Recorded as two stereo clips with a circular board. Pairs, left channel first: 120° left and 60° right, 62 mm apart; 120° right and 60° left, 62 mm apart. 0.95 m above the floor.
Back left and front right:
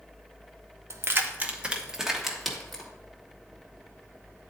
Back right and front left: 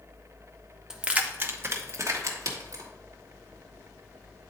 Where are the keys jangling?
20° right, 0.7 m; by 2.9 s 35° left, 1.6 m.